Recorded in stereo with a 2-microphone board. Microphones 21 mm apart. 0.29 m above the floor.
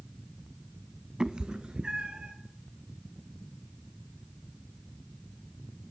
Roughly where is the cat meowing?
Right.